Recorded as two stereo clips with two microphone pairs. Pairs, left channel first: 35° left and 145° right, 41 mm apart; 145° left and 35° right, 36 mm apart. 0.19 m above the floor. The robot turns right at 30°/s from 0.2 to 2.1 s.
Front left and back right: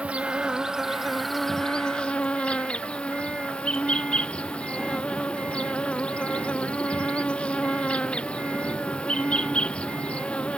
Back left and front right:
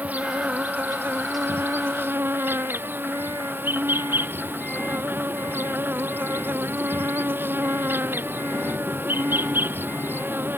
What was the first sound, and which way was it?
An insect, 85° right.